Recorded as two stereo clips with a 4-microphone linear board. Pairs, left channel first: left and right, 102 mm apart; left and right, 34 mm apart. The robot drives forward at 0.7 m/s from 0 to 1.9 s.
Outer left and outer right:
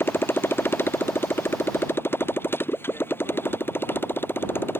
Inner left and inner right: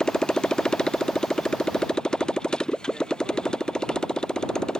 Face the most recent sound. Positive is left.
turn(degrees=20)  # may be behind; listen again after turning